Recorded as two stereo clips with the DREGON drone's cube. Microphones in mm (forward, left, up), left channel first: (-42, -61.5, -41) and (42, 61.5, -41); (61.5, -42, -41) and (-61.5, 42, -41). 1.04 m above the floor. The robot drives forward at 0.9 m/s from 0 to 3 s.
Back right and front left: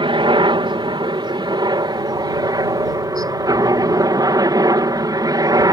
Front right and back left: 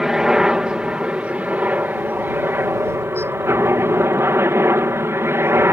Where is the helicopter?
60° left; by 5.7 s 90° left.